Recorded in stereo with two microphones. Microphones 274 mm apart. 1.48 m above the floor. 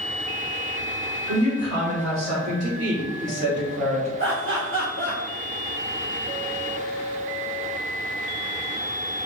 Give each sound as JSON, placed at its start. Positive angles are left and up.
{"t": 1.3, "sound": "a woman speaking", "side_deg": -85, "distance_m": 1.8}
{"t": 4.2, "sound": "laughter", "side_deg": -50, "distance_m": 0.7}